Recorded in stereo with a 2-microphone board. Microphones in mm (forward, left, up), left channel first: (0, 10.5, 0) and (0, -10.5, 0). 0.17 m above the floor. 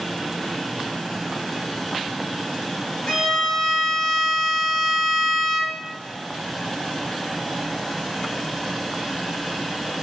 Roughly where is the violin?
Left.